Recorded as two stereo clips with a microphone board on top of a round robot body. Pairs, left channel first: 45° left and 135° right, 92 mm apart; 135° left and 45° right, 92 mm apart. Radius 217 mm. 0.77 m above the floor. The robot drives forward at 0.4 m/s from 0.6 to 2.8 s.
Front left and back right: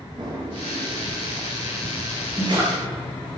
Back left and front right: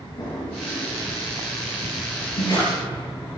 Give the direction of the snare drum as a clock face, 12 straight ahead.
7 o'clock.